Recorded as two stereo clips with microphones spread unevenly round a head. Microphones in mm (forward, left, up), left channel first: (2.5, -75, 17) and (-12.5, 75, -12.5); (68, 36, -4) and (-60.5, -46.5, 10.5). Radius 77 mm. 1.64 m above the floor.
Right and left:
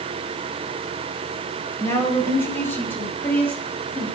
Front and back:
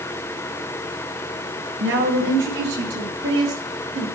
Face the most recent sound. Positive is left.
turn(degrees=-165)